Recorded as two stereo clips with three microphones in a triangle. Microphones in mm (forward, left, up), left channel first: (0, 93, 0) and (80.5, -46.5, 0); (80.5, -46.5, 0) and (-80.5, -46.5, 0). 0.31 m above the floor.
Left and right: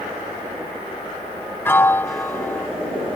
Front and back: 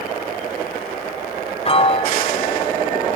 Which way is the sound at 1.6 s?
45° left.